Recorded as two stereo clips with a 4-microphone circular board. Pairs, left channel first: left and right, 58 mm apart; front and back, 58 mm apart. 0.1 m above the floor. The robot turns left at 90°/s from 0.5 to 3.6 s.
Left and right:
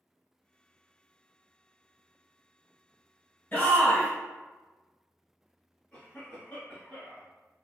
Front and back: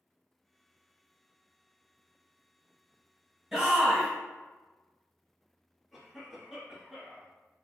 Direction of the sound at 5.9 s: 80° left.